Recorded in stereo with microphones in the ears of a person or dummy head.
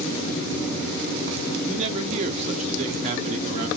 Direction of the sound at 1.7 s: 35° right (ahead or behind).